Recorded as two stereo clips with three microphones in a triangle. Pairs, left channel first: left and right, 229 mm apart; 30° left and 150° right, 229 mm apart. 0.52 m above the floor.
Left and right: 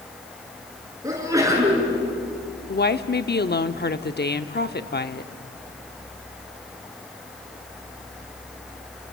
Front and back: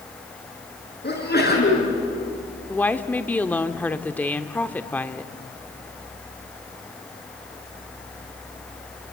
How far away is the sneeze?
About 7.5 m.